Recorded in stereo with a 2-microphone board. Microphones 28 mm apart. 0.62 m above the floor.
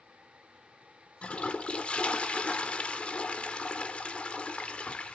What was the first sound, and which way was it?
A toilet flushing, 45° left (ahead or behind).